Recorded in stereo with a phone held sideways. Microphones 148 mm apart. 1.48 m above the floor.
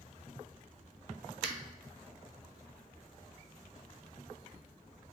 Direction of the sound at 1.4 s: 5° right (ahead or behind).